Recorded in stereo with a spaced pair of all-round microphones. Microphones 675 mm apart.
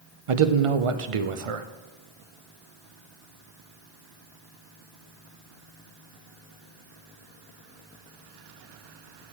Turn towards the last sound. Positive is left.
turn(degrees=-50)  # may be behind; listen again after turning